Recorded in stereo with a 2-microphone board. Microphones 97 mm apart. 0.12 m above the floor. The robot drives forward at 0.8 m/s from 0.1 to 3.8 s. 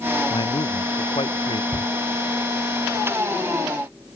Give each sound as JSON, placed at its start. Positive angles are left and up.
{"t": 0.3, "sound": "a man speaking", "side_deg": 60}
{"t": 1.7, "sound": "a shout", "side_deg": 15}